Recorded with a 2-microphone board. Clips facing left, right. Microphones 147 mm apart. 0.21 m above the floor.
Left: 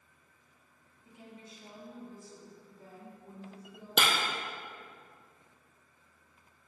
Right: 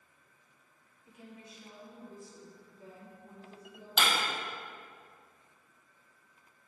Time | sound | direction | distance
1.1 | a woman speaking | 25° left (ahead or behind) | 1.7 m
4.0 | breaking glass | 65° left (ahead or behind) | 1.5 m